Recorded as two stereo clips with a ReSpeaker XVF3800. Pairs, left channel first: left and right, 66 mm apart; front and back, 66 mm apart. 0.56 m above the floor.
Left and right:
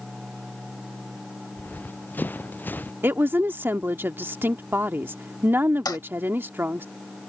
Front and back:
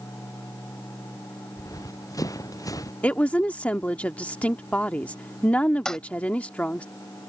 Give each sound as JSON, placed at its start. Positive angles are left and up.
{"t": 1.6, "sound": "running footsteps", "azimuth_deg": 25}
{"t": 3.0, "sound": "a woman speaking", "azimuth_deg": -60}
{"t": 5.8, "sound": "a toilet flushing", "azimuth_deg": 80}